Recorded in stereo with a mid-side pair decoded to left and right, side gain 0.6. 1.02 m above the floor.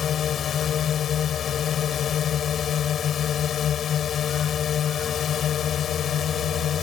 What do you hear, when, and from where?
0.0 s a drone: 40° left